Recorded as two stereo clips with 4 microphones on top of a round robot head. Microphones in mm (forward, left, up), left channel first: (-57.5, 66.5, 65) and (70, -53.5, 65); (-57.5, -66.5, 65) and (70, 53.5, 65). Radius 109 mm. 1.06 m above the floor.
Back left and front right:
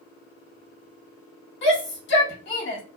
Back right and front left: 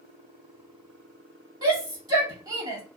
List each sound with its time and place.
1.6 s a shout: 115° left, 2 m